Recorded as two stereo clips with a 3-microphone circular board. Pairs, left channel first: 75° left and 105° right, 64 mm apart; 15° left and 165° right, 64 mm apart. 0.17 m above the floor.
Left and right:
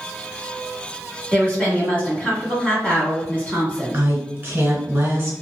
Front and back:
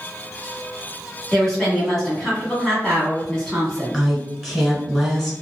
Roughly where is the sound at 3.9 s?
Right.